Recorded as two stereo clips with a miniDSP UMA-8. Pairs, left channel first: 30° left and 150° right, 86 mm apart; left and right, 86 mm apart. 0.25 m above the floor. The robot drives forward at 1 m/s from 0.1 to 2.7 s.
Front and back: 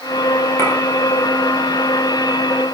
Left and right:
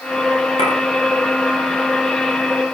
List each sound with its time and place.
0.6 s a clink: 90° left, 3.5 m